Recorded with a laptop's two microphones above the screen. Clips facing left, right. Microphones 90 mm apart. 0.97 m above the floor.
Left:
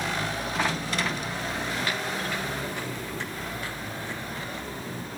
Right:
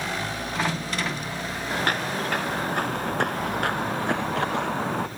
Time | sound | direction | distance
1.7 | footsteps | 50° right (ahead or behind) | ?